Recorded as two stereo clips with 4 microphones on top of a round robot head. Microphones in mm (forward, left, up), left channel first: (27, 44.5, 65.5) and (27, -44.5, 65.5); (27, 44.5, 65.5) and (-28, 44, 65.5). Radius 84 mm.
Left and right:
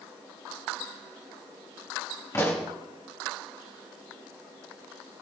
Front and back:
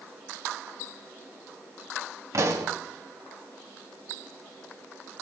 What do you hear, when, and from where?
2.3 s a pop: 155° left, 2 m